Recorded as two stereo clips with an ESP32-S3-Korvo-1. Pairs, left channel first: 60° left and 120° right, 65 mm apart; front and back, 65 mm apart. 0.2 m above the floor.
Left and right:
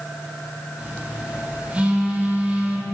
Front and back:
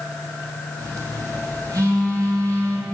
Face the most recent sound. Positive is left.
turn(degrees=170)